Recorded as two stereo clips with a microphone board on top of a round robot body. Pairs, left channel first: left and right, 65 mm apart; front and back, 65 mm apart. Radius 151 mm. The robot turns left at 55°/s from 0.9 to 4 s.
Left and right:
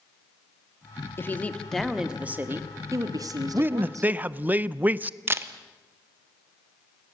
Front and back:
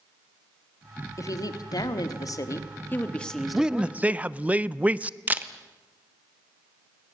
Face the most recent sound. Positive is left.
turn(degrees=-125)